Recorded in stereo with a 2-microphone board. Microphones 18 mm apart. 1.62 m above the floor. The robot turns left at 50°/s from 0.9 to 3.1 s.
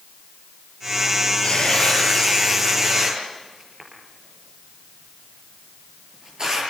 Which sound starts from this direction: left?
Tearing paper, at 1.4 s.